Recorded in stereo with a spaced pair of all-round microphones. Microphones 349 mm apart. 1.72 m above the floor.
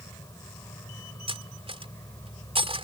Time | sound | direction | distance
0.0 | an insect | 10° left (ahead or behind) | ?
1.3 | cutlery clinking | 15° right (ahead or behind) | ?